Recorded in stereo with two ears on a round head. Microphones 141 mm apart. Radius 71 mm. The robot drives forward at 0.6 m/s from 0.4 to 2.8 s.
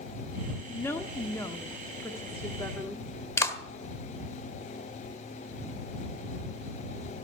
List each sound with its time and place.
0.7 s a woman speaking: 15° left (ahead or behind), 1.0 m
3.4 s a clap: 20° left (ahead or behind), 1.4 m